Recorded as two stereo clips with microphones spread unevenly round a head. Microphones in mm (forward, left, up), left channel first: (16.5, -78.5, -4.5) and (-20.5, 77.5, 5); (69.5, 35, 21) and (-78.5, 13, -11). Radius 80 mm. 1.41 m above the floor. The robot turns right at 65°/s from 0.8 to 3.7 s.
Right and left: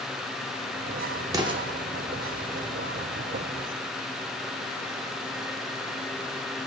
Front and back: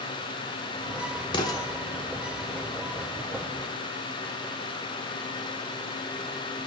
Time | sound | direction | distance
1.3 | an explosion | 45° left | 0.7 m